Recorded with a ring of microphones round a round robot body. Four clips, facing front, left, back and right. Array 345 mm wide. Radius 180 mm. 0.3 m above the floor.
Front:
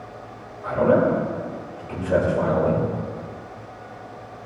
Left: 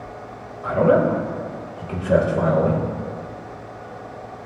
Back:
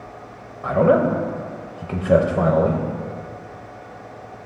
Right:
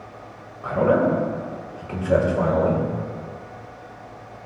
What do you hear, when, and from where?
0.6 s a man speaking: 170° left, 1.8 m